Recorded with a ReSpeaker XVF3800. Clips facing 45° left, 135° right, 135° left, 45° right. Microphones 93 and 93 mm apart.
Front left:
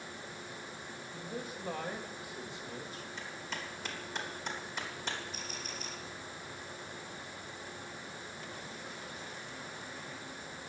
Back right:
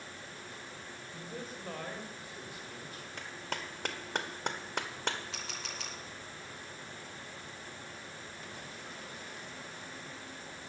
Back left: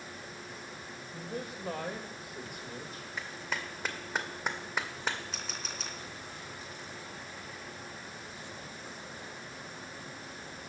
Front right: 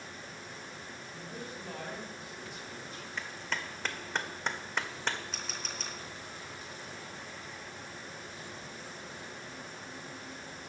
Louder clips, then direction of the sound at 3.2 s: Back right 4 dB, even; 145° right.